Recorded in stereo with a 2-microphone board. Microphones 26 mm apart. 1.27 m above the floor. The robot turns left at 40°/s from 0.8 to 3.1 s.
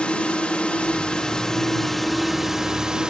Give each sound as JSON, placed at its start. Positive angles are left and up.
{"t": 0.0, "sound": "a drone", "azimuth_deg": 50}